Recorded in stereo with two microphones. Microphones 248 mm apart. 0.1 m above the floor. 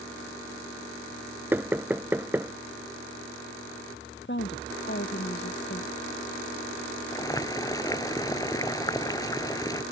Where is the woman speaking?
50° left (ahead or behind).